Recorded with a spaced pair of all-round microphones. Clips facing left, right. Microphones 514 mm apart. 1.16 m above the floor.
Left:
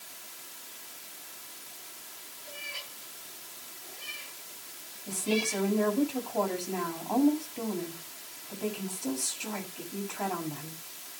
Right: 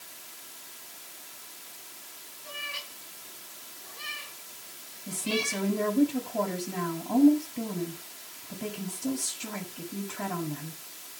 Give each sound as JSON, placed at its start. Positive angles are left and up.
{"t": 2.4, "sound": "a cat meowing", "side_deg": -80, "distance_m": 8.5}
{"t": 5.1, "sound": "a woman speaking", "side_deg": -35, "distance_m": 7.5}